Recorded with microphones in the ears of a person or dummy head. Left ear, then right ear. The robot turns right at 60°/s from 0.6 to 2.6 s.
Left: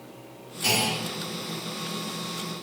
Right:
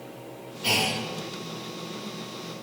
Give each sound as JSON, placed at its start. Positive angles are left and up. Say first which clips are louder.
{"t": 0.6, "sound": "a clunk", "louder": "even", "side_deg": 70, "distance_m": 2.5}